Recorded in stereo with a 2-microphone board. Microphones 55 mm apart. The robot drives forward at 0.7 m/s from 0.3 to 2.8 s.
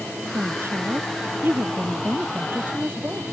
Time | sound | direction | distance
0.3 | a woman speaking | 50° right (ahead or behind) | ?